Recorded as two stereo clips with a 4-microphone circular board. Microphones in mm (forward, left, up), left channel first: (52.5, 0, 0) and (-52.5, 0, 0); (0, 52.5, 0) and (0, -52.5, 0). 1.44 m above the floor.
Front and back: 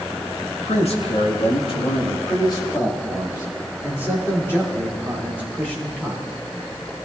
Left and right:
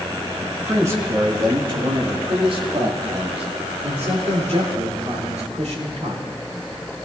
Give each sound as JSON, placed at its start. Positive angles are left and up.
{"t": 0.5, "sound": "a man speaking", "azimuth_deg": -20, "distance_m": 1.9}